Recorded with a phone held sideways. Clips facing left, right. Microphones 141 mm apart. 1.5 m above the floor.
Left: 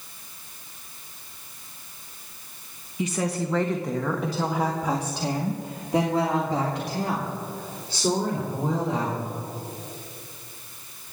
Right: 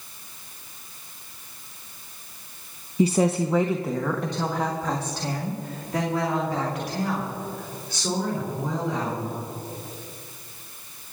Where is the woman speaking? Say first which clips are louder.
Right 6 dB; 35° right (ahead or behind), 0.7 m; by 9.3 s 35° left (ahead or behind), 3.5 m.